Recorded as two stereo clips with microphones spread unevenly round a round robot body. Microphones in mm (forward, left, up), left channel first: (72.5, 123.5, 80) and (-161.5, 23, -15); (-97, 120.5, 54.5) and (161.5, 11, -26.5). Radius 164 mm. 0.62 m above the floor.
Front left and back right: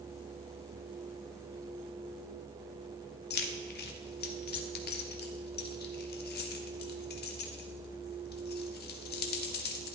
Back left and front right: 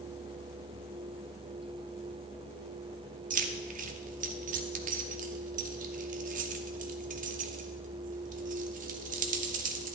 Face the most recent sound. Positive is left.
turn(degrees=-40)